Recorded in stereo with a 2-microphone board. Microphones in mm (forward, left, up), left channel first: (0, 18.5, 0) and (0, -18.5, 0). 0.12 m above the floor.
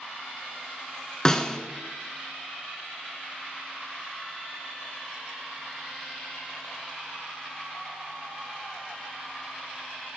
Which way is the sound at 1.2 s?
20° left (ahead or behind).